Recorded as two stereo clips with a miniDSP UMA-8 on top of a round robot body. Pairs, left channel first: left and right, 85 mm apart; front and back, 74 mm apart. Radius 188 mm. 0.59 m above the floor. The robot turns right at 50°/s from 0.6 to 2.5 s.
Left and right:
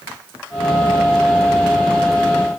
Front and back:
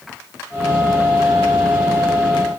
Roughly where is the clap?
I don't hear a clap.